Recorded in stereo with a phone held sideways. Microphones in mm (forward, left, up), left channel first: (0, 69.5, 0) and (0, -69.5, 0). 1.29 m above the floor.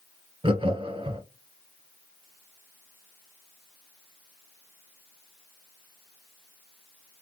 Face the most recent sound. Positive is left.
turn(degrees=-40)  # may be behind; listen again after turning